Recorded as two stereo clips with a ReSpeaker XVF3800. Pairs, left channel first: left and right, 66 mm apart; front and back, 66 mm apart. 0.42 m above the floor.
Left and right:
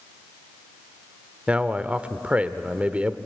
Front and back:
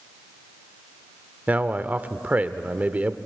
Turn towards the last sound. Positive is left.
turn(degrees=-135)